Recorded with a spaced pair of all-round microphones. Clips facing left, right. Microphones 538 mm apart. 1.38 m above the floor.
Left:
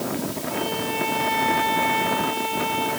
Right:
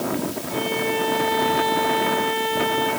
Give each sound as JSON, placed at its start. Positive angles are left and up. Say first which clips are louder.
{"t": 0.5, "sound": "a violin", "louder": "right 6 dB", "side_deg": -40, "distance_m": 8.5}